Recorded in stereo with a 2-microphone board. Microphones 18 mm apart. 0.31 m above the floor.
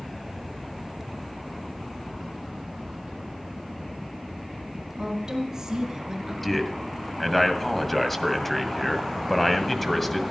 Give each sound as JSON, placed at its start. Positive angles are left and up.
{"t": 5.0, "sound": "a woman speaking", "side_deg": -30, "distance_m": 3.5}
{"t": 6.4, "sound": "a man speaking", "side_deg": 15, "distance_m": 1.8}